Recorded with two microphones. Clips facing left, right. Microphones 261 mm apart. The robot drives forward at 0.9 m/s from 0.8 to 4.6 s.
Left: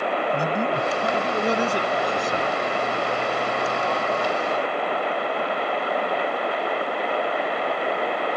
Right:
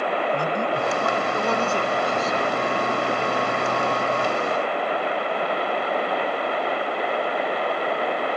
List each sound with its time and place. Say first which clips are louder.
0.3 s a man speaking: even; 20° left (ahead or behind); by 2.6 s 15° left (ahead or behind)